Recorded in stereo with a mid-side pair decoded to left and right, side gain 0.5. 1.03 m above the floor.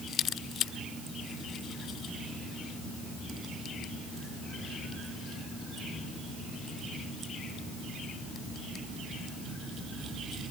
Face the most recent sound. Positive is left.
No sound to turn to.